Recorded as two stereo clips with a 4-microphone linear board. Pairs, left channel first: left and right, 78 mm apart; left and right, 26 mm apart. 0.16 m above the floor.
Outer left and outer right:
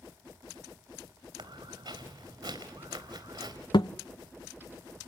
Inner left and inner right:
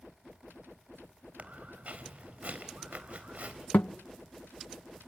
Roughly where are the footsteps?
Right.